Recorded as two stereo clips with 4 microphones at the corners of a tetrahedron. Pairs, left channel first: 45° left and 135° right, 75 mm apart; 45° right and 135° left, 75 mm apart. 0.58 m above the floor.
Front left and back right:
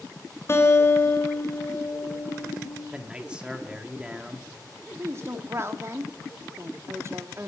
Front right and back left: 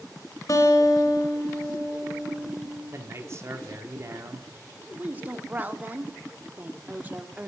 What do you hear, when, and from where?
0.5 s a guitar: 5° right, 1.7 m
2.9 s a man speaking: 150° left, 1.4 m
5.0 s a woman speaking: 170° right, 0.9 m